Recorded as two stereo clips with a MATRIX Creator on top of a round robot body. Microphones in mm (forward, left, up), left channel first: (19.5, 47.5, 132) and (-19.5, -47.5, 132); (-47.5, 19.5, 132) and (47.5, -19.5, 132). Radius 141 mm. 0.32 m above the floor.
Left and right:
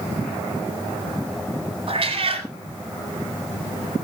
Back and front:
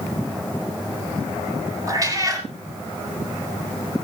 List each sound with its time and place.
1.9 s a cat meowing: 80° right, 4 m